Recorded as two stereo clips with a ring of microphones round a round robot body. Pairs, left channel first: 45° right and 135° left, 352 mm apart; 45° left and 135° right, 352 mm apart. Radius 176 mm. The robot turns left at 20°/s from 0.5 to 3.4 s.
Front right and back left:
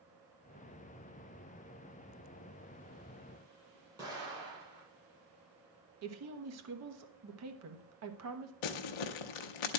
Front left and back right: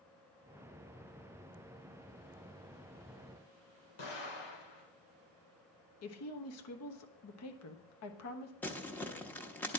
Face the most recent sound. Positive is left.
turn(degrees=-40)